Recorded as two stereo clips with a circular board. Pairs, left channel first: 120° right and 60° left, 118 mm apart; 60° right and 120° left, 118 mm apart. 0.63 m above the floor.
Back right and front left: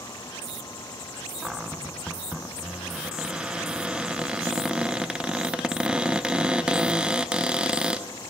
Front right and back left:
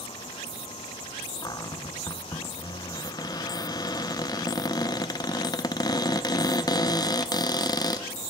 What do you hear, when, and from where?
1.4 s a cupboard door: 20° right, 0.5 m